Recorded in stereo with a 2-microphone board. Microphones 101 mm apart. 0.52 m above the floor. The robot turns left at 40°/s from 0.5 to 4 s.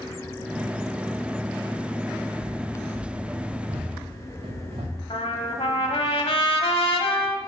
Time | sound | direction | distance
2.4 | running footsteps | 55° right (ahead or behind) | 4 m
5.1 | a trumpet | 70° left (ahead or behind) | 1.1 m